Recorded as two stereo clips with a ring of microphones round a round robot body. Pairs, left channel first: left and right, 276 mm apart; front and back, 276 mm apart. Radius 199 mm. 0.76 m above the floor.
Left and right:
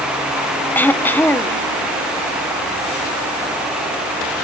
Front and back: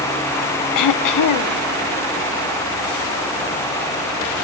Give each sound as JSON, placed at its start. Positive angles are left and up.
{"t": 0.8, "sound": "throat clearing", "azimuth_deg": 5, "distance_m": 0.8}